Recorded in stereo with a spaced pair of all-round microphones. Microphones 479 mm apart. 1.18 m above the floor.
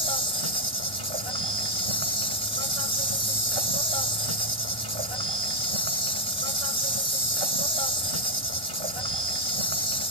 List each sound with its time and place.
0.0 s an insect: 80° right